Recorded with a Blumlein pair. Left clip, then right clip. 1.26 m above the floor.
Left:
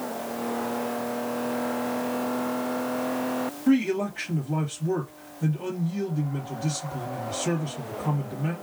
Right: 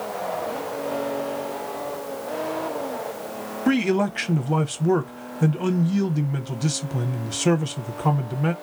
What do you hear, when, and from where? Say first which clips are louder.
3.7 s a man speaking: right 3 dB; 35° right, 0.7 m